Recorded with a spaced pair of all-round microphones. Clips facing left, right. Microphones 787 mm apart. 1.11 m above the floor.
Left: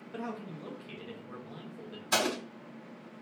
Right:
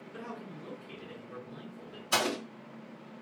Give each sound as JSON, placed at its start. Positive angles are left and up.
{"t": 0.1, "sound": "a man speaking", "side_deg": 80, "distance_m": 1.2}
{"t": 2.1, "sound": "an explosion", "side_deg": 55, "distance_m": 2.0}